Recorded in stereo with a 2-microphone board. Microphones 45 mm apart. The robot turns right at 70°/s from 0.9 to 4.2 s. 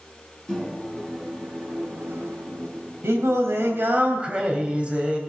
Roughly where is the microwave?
Behind.